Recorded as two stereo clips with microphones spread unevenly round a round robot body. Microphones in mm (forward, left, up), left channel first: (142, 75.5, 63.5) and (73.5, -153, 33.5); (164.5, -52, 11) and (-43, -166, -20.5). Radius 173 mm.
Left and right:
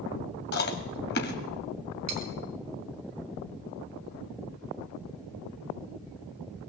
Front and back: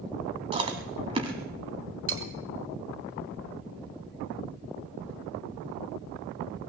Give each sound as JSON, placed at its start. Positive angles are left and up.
{"t": 0.5, "sound": "chewing", "azimuth_deg": 135, "distance_m": 0.6}
{"t": 2.1, "sound": "cutlery clinking", "azimuth_deg": -125, "distance_m": 2.5}